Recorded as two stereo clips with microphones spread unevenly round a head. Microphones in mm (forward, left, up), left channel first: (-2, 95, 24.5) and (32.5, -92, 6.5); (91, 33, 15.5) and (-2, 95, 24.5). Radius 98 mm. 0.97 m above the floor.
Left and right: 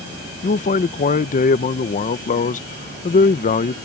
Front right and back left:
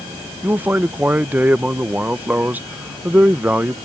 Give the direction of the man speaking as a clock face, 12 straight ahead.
10 o'clock.